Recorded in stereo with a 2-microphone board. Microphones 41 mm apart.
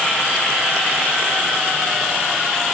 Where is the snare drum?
I don't hear a snare drum.